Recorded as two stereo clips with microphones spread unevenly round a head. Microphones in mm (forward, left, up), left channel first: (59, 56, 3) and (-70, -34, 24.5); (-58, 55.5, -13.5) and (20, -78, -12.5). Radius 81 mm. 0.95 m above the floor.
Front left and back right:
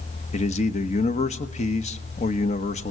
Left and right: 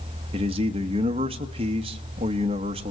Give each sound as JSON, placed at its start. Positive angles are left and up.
{"t": 0.3, "sound": "a man speaking", "azimuth_deg": -5, "distance_m": 1.0}